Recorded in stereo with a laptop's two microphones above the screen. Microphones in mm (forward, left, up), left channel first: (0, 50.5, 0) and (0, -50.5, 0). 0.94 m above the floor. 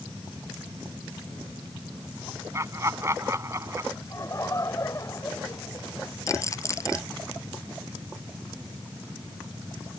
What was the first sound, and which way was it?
Laughter, 30° right (ahead or behind).